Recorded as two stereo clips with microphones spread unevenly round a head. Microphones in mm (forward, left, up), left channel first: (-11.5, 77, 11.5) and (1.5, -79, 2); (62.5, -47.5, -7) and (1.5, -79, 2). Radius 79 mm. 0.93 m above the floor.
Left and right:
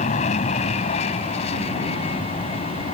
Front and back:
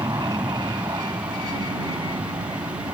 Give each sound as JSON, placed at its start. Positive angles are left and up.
{"t": 0.0, "sound": "an aircraft", "azimuth_deg": 145}